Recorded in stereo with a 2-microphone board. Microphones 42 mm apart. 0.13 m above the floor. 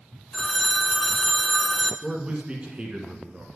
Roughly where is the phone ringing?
Centre.